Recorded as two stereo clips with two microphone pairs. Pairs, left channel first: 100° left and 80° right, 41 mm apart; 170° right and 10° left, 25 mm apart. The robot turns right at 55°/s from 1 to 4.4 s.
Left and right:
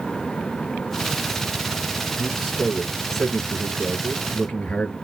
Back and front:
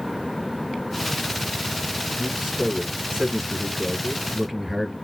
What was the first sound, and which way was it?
A man speaking, 20° right.